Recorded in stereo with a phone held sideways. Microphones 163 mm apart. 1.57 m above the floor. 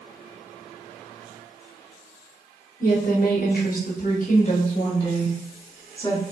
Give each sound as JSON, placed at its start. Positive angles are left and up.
{"t": 2.8, "sound": "a woman speaking", "side_deg": 55, "distance_m": 1.1}